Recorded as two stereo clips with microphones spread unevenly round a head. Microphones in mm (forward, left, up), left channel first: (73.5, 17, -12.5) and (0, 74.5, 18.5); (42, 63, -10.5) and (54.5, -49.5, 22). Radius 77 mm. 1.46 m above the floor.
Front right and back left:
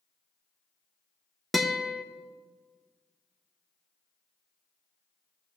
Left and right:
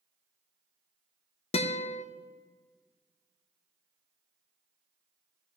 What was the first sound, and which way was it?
A guitar, 75° left.